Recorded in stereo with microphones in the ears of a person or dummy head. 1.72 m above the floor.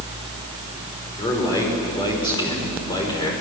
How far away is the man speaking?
About 5 m.